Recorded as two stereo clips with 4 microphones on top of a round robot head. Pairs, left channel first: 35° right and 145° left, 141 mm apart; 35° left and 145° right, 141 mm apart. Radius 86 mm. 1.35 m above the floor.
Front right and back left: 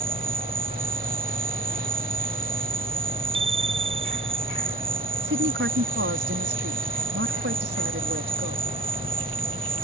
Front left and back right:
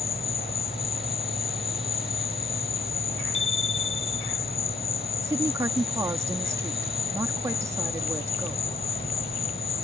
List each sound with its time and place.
0.0 s an insect: 90° left
3.3 s a bicycle bell: 90° left
5.2 s a woman speaking: 145° left